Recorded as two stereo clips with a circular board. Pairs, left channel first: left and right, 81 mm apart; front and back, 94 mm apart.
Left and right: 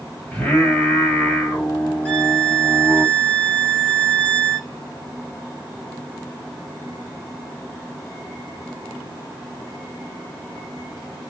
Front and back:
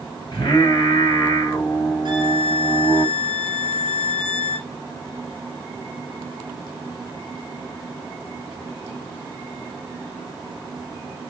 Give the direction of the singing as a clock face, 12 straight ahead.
11 o'clock.